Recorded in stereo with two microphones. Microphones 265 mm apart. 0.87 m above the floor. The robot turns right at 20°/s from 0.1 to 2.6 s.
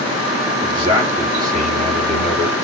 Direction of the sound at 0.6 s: 165° right.